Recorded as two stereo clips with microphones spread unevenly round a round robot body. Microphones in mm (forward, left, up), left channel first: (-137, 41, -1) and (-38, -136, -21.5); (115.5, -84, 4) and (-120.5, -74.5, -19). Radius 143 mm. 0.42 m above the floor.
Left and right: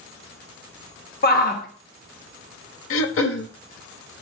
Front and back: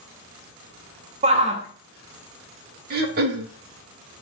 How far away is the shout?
About 1.0 m.